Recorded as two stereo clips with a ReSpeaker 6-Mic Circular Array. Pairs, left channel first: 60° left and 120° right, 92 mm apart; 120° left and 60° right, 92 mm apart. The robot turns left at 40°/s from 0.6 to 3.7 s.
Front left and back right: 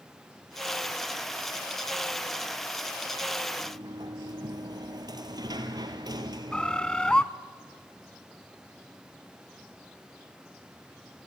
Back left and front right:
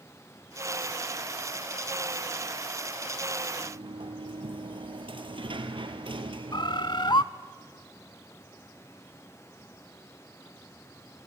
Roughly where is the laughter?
No laughter in this recording.